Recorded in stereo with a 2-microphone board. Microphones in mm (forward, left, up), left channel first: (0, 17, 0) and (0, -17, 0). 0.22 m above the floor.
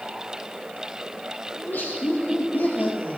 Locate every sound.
1.6 s laughter: 75° left (ahead or behind), 6.5 m